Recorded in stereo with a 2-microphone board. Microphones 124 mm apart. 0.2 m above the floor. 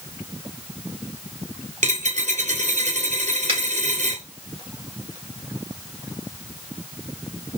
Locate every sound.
1.8 s a dropped coin: 70° right (ahead or behind), 1.1 m
3.5 s a finger snap: 45° right (ahead or behind), 2.5 m